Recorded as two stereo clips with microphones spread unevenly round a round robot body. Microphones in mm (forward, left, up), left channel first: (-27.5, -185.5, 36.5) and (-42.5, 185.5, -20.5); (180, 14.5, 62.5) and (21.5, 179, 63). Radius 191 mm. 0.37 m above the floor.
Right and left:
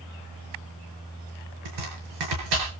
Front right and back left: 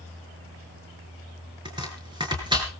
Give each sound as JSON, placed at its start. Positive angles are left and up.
{"t": 1.6, "sound": "chopping", "azimuth_deg": 65, "distance_m": 7.0}